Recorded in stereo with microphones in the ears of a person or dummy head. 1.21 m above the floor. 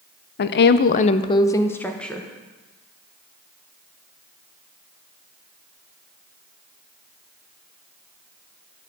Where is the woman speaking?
50° left (ahead or behind), 0.5 m; by 2.3 s 5° left (ahead or behind), 1.1 m.